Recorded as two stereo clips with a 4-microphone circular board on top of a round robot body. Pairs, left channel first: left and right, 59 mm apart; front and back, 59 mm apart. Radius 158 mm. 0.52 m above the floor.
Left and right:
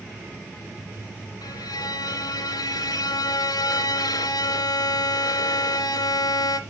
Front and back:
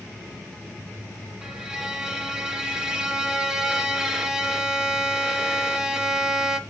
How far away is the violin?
About 0.8 m.